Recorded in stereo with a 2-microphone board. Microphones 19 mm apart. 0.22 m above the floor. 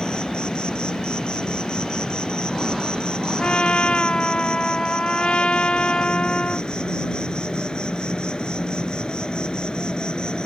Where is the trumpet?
65° left (ahead or behind).